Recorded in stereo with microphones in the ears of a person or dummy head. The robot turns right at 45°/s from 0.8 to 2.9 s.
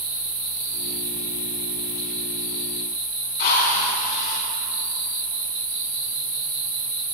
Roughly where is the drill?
Left.